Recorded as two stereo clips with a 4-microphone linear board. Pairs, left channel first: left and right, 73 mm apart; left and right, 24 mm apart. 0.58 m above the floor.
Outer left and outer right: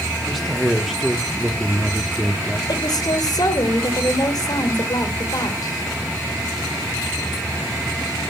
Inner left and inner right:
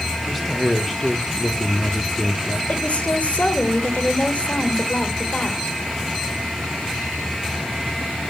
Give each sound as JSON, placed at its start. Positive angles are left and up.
{"t": 0.2, "sound": "a man speaking", "side_deg": 0, "distance_m": 0.9}
{"t": 2.7, "sound": "a woman speaking", "side_deg": 65, "distance_m": 1.6}